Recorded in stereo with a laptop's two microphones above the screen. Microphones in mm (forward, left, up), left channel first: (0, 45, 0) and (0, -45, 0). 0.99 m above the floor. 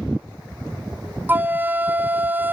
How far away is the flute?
About 0.6 m.